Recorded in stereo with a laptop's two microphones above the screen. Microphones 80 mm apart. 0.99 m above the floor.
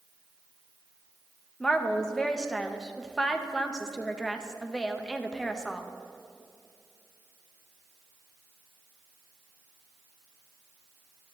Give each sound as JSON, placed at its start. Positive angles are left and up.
{"t": 1.6, "sound": "a woman speaking", "side_deg": 10, "distance_m": 0.6}